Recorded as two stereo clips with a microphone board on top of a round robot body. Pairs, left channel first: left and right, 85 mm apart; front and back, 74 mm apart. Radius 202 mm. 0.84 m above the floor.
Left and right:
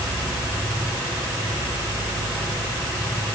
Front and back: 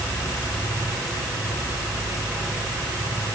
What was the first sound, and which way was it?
Only background noise.